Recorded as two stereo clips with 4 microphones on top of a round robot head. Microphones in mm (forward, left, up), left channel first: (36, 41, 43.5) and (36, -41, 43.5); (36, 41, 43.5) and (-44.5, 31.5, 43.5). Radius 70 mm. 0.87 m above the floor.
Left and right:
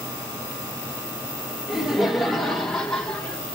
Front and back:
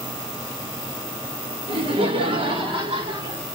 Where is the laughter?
175° right, 2.5 m; by 3.4 s 165° left, 3 m.